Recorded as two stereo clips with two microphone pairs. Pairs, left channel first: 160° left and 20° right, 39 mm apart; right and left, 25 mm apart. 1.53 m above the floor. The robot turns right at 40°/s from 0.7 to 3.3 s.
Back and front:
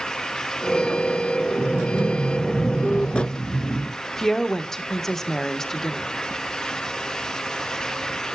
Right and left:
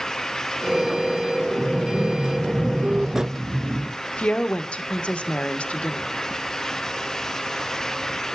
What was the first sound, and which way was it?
A sliding door, 30° left.